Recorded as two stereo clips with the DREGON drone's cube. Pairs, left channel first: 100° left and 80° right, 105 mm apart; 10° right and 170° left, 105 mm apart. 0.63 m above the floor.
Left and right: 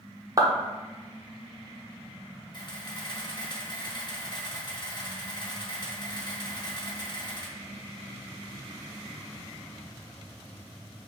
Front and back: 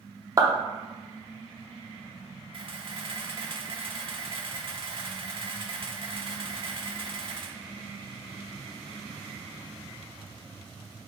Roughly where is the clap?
Behind right.